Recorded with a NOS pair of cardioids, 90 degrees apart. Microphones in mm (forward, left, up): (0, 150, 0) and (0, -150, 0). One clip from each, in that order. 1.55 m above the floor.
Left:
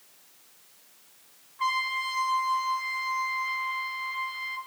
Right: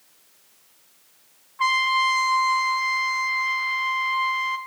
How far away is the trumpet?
About 1.0 m.